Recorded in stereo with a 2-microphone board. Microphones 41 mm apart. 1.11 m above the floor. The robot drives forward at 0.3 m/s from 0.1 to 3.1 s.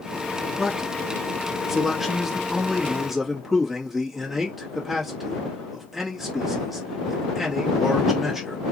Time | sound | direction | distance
0.6 | a man speaking | 10° right (ahead or behind) | 1.2 m